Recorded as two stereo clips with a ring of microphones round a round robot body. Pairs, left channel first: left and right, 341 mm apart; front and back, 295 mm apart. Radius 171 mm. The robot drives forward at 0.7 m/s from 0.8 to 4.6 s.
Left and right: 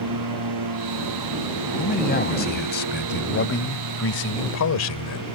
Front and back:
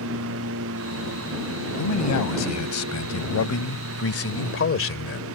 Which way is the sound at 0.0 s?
125° right.